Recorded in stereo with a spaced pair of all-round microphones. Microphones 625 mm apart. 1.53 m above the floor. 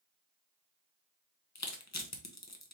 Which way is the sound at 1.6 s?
25° left (ahead or behind).